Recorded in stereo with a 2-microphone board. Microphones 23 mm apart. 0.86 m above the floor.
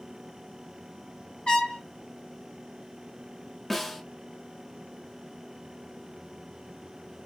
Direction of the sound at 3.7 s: 5° left (ahead or behind).